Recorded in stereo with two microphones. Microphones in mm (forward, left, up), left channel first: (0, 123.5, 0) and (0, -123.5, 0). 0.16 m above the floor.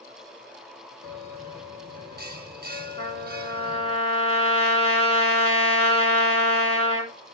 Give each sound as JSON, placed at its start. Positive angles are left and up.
{"t": 1.0, "sound": "a bell", "side_deg": -40, "distance_m": 1.2}
{"t": 3.0, "sound": "a trumpet", "side_deg": -65, "distance_m": 4.5}